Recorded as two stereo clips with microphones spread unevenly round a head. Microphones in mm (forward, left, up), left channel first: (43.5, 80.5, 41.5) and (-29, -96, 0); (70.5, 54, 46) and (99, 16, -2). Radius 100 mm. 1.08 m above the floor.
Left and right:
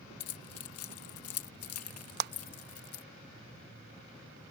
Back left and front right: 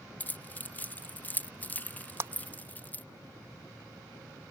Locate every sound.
0.2 s keys jangling: 80° left
2.2 s a clap: 80° right